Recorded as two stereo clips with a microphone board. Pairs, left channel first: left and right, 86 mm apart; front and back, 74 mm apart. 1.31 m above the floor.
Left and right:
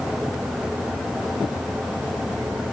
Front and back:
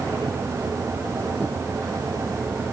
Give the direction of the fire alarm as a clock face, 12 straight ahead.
No fire alarm in this recording.